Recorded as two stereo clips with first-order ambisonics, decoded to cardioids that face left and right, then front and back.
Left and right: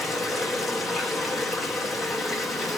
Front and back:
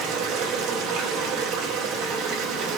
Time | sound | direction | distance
0.0 | running water | 165° left | 1.3 m